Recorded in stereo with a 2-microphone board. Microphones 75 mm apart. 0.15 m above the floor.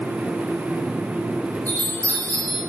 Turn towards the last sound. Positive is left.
turn(degrees=30)  # may be behind; listen again after turning